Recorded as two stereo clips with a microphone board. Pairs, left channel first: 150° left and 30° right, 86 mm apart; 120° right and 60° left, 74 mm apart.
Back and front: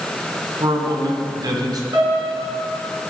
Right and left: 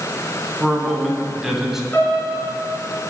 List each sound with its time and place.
0.6 s a man speaking: 30° right, 3 m; by 1.8 s 20° right, 2 m
1.9 s a piano: 55° right, 4.5 m